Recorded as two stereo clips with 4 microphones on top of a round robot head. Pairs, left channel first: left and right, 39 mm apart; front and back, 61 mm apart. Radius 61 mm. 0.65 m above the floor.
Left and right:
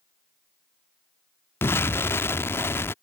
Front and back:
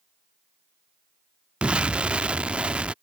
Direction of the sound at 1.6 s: 105° left.